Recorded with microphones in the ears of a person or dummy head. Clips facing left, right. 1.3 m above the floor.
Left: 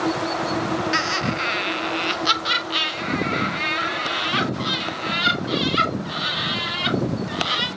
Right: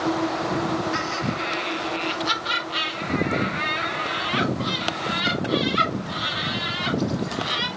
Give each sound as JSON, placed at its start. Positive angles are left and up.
{"t": 0.9, "sound": "laughter", "side_deg": 75, "distance_m": 1.1}